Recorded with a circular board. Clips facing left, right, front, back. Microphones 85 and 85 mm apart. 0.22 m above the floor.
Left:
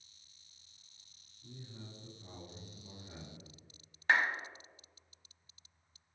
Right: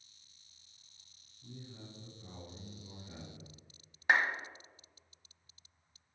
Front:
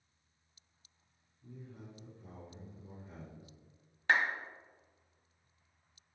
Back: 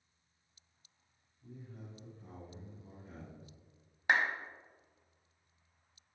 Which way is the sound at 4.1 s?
140° right.